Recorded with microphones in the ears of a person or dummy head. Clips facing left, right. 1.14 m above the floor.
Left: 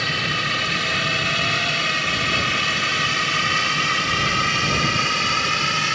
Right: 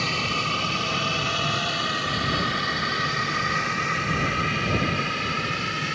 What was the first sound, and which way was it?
A drone, 15° left (ahead or behind).